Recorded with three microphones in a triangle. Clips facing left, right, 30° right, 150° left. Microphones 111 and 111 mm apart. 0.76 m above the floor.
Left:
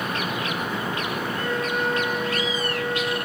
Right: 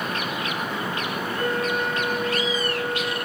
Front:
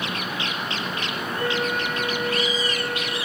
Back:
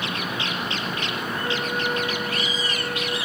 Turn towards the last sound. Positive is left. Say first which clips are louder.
# right 2 dB, front 3 dB
turn(degrees=-50)